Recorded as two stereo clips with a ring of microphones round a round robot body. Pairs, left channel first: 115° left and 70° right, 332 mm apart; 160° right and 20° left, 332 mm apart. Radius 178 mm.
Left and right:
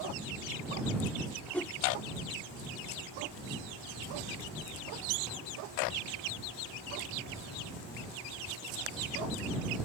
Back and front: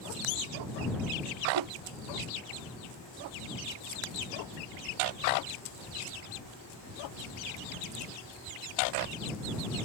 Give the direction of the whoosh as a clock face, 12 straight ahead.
11 o'clock.